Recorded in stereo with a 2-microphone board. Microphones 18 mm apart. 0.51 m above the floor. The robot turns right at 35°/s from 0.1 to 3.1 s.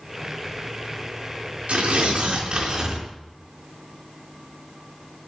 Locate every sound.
1.7 s tearing paper: 85° right, 4 m; by 3.1 s 40° right, 4 m